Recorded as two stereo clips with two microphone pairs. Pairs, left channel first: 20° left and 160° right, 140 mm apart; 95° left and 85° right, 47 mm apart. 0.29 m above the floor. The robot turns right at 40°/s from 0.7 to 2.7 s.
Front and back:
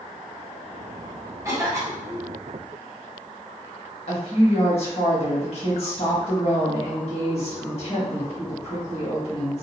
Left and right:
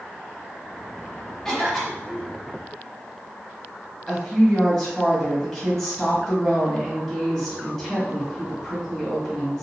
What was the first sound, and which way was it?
A cough, 165° left.